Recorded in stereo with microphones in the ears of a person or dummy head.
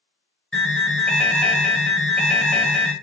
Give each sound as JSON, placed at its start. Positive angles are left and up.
{"t": 0.5, "sound": "an alarm", "side_deg": 5, "distance_m": 0.9}